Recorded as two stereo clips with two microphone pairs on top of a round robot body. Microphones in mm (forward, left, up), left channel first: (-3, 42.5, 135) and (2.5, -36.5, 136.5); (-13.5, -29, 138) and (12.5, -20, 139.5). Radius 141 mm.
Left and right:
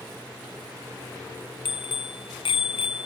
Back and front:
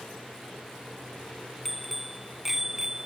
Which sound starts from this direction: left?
A bicycle bell, at 1.6 s.